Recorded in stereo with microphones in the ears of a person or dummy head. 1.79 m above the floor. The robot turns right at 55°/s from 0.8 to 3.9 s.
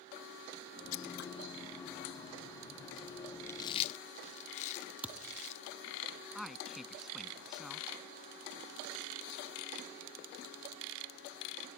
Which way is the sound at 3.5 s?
10° left (ahead or behind).